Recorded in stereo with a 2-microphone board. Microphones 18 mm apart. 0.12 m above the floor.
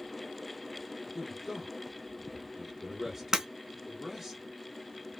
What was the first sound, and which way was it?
A man speaking, 20° right (ahead or behind).